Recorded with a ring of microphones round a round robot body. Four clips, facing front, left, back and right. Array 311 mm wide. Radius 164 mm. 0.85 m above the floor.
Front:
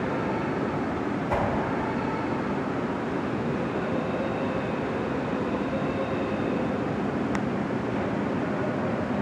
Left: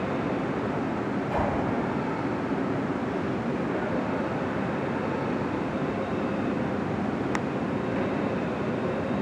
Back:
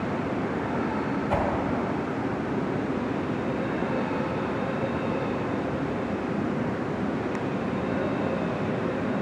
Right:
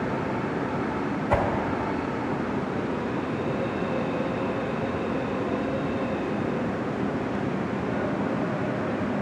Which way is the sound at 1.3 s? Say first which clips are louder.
Right 5 dB, even; 70° right.